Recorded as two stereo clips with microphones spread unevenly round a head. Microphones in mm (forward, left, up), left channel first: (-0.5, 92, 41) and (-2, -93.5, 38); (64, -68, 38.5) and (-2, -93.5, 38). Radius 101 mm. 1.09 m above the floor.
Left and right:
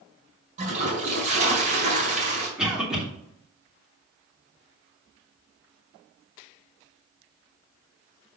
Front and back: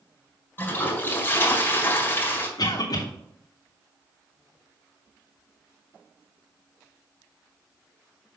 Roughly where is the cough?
Ahead.